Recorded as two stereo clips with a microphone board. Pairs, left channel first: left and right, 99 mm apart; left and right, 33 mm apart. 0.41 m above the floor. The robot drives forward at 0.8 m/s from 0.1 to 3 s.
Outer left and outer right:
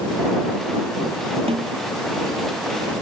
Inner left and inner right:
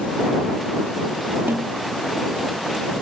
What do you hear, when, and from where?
1.5 s a snare drum: 80° right